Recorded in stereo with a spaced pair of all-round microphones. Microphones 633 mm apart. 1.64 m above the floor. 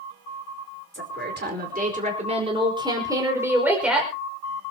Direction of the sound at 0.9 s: 20° right (ahead or behind).